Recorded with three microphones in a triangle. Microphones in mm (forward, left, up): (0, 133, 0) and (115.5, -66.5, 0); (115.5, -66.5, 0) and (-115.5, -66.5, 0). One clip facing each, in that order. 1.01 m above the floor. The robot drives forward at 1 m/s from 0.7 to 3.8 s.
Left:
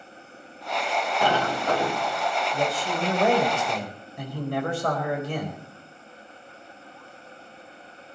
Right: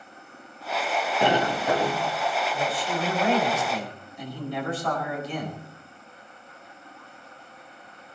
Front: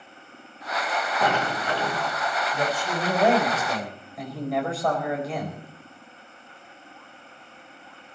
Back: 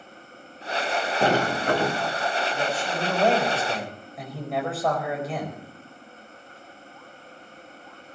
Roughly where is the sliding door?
Behind right.